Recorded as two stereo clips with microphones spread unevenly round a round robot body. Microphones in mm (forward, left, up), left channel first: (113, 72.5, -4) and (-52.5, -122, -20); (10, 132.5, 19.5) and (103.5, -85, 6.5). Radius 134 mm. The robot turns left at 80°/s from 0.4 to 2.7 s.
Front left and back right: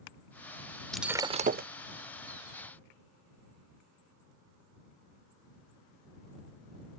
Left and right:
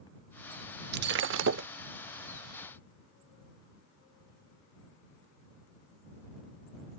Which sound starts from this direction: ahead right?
Breaking glass, at 0.9 s.